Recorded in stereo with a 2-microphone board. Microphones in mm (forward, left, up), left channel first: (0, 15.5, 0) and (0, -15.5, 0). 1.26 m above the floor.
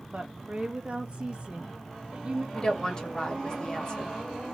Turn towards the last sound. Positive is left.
turn(degrees=25)  # may be behind; listen again after turning